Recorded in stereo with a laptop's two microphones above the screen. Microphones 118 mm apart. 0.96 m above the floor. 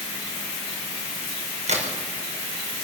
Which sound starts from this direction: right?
A crack, at 1.2 s.